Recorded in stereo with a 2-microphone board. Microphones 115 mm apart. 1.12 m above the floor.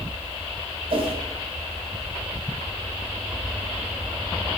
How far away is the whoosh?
About 1.9 m.